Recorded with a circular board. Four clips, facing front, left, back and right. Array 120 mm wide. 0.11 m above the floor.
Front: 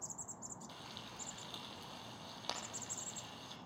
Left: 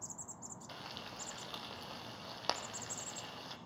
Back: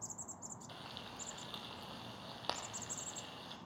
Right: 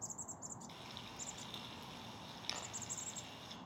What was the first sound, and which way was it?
Frying, 105° left.